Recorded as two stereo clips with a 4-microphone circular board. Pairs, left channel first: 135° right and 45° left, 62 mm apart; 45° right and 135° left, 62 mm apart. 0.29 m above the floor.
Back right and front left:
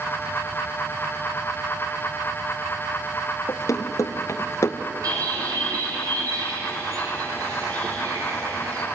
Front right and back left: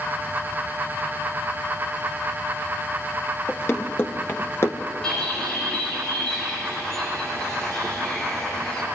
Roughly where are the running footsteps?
Right.